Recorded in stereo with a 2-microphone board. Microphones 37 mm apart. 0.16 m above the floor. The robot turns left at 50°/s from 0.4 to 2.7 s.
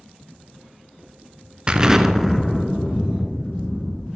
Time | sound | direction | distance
1.7 | an explosion | 150° right | 0.6 m